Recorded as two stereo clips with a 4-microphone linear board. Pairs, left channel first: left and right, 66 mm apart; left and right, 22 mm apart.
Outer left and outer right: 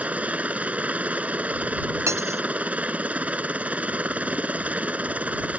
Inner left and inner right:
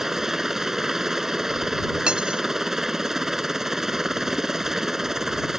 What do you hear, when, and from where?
0.0 s a helicopter: 20° right (ahead or behind)
2.1 s cutlery clinking: 45° right (ahead or behind)